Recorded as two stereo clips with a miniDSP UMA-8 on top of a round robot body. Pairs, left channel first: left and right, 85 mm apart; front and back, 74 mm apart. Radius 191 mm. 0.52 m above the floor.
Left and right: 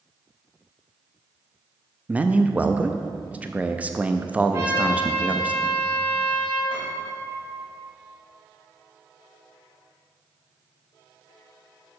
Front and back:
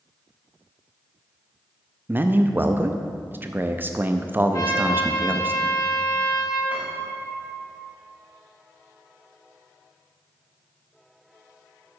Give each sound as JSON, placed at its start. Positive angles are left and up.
{"t": 2.1, "sound": "a man speaking", "azimuth_deg": -150, "distance_m": 0.7}
{"t": 4.5, "sound": "a trumpet", "azimuth_deg": -35, "distance_m": 3.0}
{"t": 6.7, "sound": "a piano", "azimuth_deg": -110, "distance_m": 2.5}